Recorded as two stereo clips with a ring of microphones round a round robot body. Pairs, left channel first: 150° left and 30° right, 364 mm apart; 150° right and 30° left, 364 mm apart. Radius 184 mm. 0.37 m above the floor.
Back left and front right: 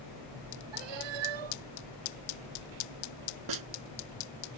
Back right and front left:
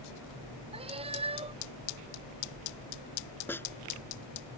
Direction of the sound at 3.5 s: 65° right.